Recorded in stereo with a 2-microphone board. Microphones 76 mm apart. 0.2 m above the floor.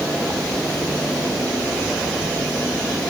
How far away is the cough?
No cough in this recording.